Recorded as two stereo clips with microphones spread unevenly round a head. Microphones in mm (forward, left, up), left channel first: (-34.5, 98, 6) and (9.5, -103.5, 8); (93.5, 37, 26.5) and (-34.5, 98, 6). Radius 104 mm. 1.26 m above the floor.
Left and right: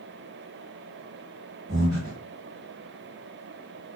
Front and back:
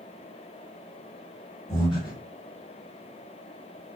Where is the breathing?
20° right, 1.2 m.